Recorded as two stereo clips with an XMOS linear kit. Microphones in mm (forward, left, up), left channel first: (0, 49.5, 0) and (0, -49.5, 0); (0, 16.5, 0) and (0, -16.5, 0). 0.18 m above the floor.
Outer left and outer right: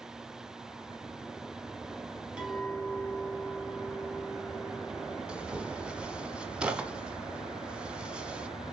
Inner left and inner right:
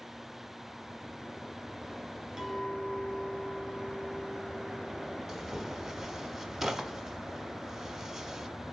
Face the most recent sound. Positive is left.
turn(degrees=-10)  # may be behind; listen again after turning